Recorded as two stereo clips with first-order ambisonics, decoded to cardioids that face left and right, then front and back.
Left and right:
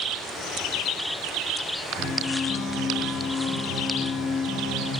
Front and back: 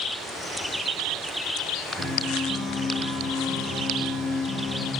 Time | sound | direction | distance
2.0 | a guitar | 80° left | 3 m